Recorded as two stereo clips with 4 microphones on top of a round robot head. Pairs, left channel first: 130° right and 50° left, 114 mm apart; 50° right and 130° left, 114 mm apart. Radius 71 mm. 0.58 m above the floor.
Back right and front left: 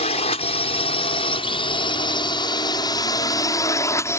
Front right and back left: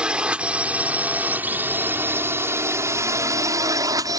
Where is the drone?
150° right; by 4.2 s 175° left.